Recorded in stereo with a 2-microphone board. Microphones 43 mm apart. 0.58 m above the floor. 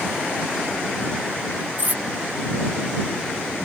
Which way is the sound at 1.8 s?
40° right (ahead or behind).